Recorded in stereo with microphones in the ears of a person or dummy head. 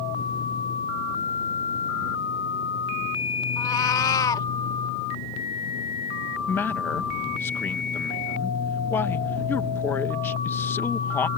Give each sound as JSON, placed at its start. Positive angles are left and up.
{"t": 3.6, "sound": "a cat meowing", "side_deg": 15}
{"t": 6.5, "sound": "a man speaking", "side_deg": 10}